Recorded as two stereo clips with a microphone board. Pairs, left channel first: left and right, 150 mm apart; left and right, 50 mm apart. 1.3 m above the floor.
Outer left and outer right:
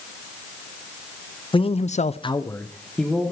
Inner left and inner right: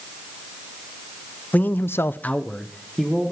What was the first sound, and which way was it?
A man speaking, 35° left (ahead or behind).